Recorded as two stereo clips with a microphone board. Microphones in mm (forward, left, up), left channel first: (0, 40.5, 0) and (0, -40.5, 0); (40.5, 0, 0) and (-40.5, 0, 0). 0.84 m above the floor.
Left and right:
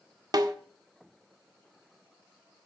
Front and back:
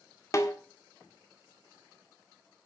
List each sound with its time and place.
0.3 s a snare drum: 50° right, 1.6 m